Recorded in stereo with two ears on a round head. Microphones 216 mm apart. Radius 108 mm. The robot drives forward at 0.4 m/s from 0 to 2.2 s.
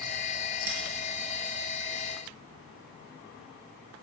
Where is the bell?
10° right (ahead or behind), 3.5 m.